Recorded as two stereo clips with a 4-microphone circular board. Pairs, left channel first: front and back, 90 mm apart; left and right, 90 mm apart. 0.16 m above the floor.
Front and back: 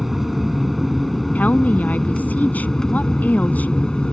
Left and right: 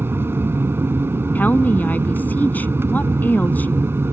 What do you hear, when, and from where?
0.0 s an aircraft: 95° right; by 4.1 s 70° right
1.4 s a woman speaking: 45° left